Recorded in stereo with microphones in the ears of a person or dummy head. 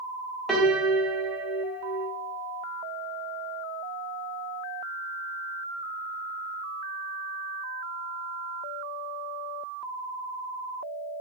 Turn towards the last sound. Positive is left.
turn(degrees=0)  # may be behind; listen again after turning